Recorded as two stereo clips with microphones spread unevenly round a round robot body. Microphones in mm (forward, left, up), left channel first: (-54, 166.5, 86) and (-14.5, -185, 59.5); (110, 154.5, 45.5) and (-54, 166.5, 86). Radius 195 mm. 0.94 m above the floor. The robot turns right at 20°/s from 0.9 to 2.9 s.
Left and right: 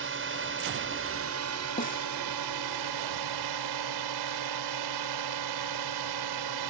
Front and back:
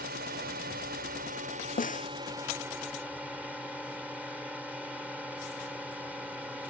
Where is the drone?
135° right; by 6.7 s 95° right.